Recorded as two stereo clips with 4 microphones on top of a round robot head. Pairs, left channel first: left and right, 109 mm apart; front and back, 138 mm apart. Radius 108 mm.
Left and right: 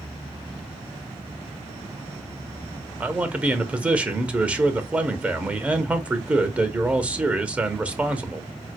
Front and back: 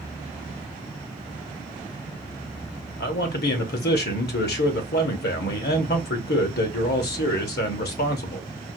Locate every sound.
3.0 s a man speaking: 10° right, 0.7 m